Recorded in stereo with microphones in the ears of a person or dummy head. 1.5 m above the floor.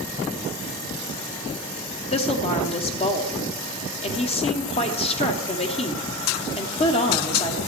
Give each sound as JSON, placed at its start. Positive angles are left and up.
{"t": 2.1, "sound": "a woman speaking", "side_deg": 25, "distance_m": 1.1}